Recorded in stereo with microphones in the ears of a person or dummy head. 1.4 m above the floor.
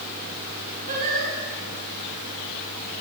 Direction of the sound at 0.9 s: 45° right (ahead or behind).